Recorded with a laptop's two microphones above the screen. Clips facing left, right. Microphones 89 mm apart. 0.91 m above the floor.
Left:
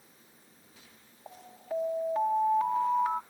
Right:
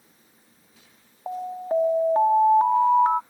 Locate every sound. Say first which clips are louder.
1.3 s an alarm: right 12 dB; 40° right (ahead or behind)